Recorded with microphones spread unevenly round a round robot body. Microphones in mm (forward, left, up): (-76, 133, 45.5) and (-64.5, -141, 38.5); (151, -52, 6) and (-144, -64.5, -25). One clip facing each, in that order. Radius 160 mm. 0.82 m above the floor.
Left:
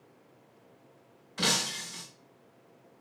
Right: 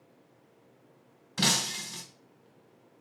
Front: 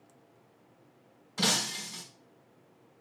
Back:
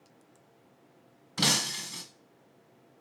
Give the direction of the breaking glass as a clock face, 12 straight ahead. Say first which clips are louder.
Right 1 dB, back 1 dB; 4 o'clock.